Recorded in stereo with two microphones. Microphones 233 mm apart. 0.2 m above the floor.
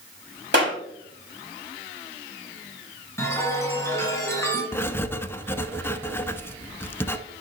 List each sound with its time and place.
0.5 s a clap: 55° right (ahead or behind), 4 m
3.2 s a chime: 10° left (ahead or behind), 2 m
4.7 s writing: 10° left (ahead or behind), 0.5 m